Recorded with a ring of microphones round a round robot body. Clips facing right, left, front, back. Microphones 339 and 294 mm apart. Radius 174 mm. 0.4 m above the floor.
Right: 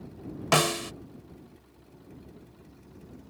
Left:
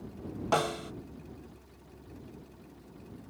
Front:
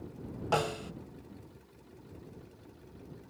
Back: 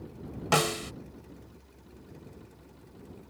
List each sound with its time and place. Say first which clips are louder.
0.5 s a snare drum: right 5 dB, back 4 dB; 125° right